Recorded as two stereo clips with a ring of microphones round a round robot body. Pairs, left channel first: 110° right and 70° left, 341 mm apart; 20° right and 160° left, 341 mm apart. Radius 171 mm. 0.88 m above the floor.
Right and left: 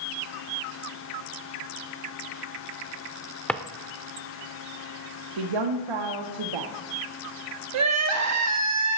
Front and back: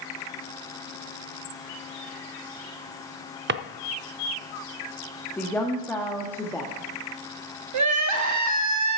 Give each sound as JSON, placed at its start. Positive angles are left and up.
{"t": 3.5, "sound": "a drawer", "azimuth_deg": 165, "distance_m": 0.5}
{"t": 5.4, "sound": "a woman speaking", "azimuth_deg": 60, "distance_m": 1.4}
{"t": 7.7, "sound": "crying", "azimuth_deg": 115, "distance_m": 1.1}